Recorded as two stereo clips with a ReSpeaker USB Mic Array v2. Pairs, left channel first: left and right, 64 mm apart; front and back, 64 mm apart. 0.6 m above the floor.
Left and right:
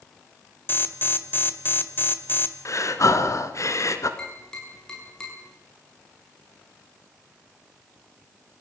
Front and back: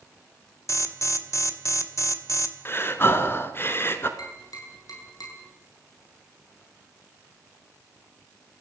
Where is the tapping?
10° left, 8.5 m.